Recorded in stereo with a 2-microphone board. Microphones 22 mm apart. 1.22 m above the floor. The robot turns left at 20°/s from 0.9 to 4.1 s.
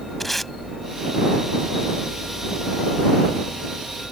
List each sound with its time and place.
0.2 s tape being pulled: 10° left (ahead or behind)